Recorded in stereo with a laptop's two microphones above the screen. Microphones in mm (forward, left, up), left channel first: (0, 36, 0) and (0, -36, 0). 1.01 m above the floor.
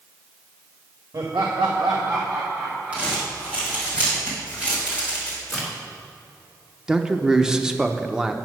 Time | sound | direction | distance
1.1 | laughter | 60° right (ahead or behind) | 1.3 m
2.9 | crumpling | 20° right (ahead or behind) | 3 m
5.5 | a crack | 5° left (ahead or behind) | 2.5 m
6.9 | a man speaking | 10° right (ahead or behind) | 0.6 m